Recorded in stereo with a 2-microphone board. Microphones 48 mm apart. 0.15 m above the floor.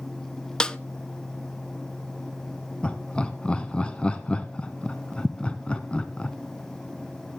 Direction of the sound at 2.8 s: 20° left (ahead or behind).